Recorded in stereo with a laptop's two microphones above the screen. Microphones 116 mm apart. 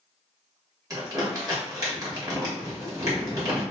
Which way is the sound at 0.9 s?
30° right (ahead or behind).